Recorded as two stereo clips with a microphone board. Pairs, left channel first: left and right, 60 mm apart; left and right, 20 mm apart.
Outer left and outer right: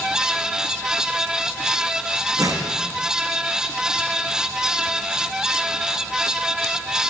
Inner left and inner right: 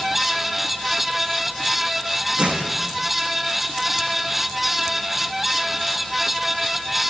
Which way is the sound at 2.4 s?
75° right (ahead or behind).